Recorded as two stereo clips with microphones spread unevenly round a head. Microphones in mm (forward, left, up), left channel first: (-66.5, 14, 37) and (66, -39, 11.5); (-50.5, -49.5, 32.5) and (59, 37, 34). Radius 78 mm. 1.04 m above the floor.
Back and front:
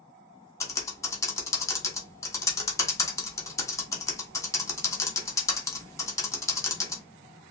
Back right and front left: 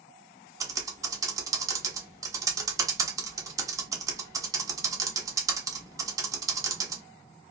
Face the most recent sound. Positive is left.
turn(degrees=90)